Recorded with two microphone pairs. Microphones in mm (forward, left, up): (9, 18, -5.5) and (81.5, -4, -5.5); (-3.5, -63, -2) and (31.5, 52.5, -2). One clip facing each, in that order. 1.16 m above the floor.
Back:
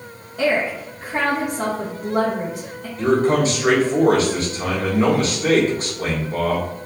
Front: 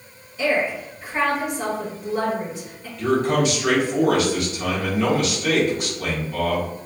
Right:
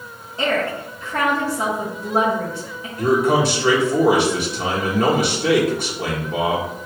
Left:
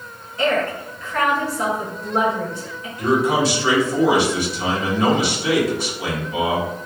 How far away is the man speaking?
About 1.8 m.